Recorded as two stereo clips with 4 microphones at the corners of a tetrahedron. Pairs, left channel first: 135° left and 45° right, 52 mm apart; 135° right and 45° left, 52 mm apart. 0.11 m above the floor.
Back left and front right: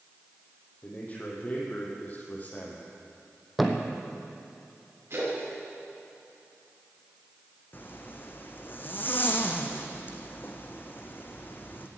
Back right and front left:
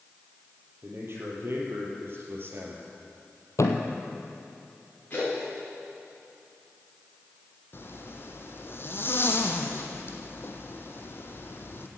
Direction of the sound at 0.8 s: 80° left.